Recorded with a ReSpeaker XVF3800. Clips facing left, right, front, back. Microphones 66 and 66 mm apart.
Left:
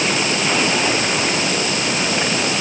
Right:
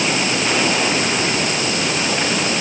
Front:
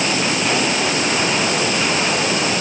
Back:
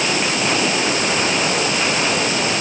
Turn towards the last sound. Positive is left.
No sound to turn to.